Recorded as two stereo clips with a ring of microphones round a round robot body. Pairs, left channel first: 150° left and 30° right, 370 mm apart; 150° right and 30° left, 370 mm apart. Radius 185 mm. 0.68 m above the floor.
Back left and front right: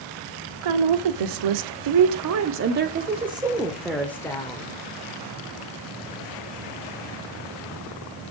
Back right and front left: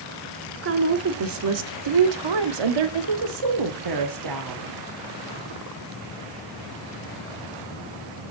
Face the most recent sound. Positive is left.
turn(degrees=75)